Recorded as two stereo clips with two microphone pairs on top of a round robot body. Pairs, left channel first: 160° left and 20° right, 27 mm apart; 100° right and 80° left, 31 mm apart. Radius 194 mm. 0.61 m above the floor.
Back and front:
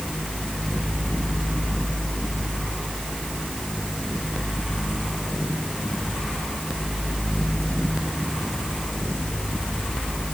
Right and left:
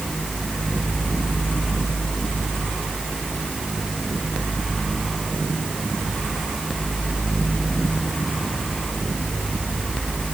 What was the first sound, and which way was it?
Only background noise.